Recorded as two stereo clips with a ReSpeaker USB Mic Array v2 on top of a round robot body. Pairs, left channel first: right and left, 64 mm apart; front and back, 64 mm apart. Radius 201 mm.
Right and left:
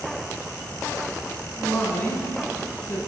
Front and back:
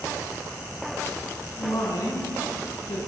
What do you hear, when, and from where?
1.6 s a woman speaking: 30° right, 9 m